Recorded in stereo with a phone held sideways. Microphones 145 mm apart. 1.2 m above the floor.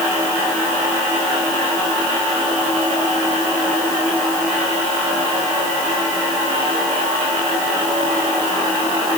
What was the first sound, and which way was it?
Only background noise.